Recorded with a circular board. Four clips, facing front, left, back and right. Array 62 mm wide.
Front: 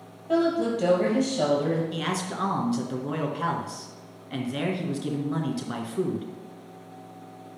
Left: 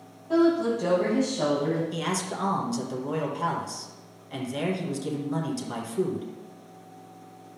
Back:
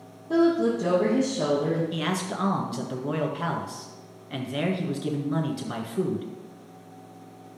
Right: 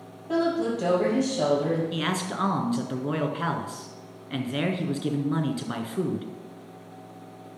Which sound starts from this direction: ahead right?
A woman speaking, at 0.3 s.